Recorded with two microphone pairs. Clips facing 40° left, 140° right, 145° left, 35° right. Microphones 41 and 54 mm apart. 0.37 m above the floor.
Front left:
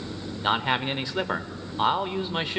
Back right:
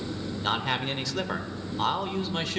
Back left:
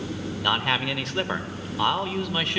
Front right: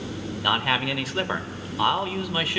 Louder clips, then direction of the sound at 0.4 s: Front left 4 dB, front right 1 dB; 45° left.